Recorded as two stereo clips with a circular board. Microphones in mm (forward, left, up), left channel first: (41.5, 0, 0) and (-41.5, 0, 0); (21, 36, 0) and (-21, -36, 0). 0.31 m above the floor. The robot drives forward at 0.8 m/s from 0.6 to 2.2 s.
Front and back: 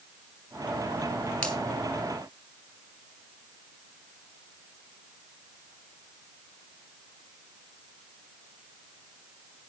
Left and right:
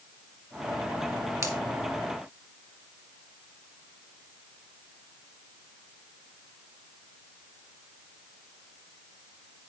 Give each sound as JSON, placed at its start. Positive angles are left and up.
{"t": 1.4, "sound": "a finger snap", "azimuth_deg": -75, "distance_m": 2.5}